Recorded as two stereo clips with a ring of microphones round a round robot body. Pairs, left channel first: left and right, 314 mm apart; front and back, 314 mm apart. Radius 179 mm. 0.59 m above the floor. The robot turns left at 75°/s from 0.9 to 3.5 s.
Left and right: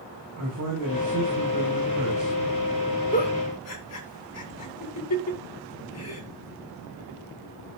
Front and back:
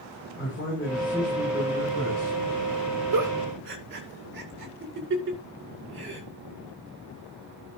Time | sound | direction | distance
0.4 | a man speaking | 55° right | 8 m
3.1 | a giggle | 155° left | 2.5 m